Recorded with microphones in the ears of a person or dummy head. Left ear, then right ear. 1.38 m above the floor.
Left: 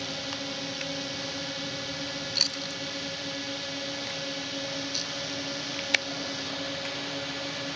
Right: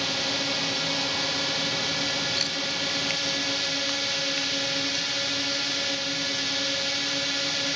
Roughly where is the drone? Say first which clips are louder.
Right 7 dB; right.